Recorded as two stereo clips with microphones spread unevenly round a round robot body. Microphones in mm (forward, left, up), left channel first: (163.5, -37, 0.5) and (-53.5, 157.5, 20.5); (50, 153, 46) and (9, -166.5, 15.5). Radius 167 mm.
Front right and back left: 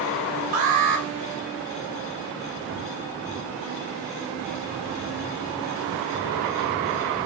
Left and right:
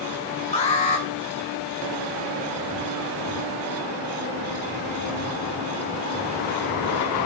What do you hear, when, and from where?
0.5 s an alarm: 155° left, 2.5 m